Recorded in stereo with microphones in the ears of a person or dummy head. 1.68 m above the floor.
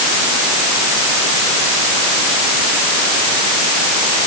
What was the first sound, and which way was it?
Only background noise.